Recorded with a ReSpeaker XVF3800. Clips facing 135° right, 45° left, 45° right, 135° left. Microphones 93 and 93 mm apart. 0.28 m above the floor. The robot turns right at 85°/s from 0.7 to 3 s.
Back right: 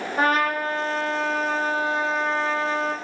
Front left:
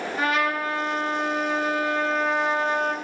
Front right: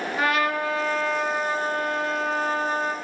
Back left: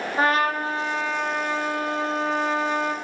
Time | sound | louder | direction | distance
0.2 | a trumpet | back right 3 dB, back left 2 dB | 175° right | 0.5 m